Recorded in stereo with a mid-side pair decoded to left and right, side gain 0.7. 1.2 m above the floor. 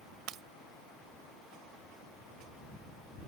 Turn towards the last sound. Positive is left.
turn(degrees=-50)